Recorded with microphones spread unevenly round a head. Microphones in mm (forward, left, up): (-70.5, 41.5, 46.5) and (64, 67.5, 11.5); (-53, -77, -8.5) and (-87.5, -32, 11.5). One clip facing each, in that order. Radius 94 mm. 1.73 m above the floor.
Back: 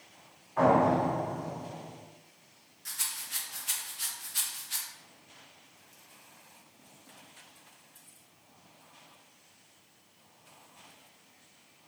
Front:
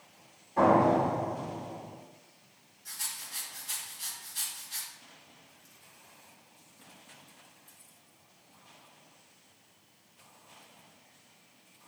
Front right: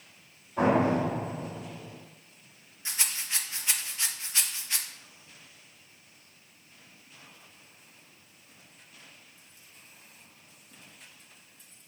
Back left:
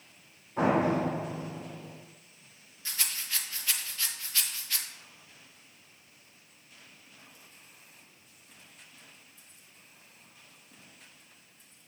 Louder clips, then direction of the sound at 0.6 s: Front 1 dB, front right 2 dB; 70° left.